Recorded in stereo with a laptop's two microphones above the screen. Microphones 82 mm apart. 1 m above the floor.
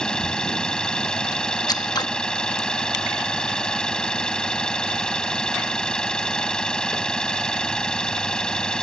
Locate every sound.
0.0 s an engine running: 10° left (ahead or behind)
1.7 s scissors: 55° left (ahead or behind)